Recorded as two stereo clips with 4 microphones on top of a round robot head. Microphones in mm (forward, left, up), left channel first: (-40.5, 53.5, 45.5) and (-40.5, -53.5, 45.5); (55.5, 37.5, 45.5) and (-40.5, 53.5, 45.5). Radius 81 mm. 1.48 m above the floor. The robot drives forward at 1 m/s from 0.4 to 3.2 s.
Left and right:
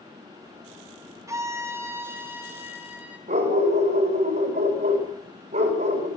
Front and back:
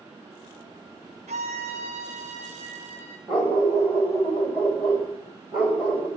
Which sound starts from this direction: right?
A dog barking, at 3.3 s.